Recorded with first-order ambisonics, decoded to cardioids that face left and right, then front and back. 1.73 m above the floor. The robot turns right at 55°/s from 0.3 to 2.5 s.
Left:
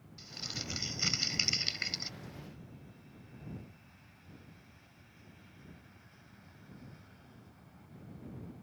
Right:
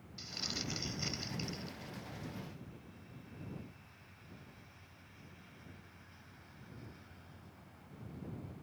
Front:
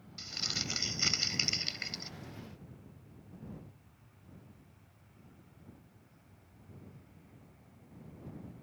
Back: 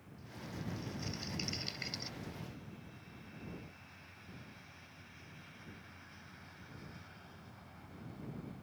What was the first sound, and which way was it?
Crumpling, 10° right.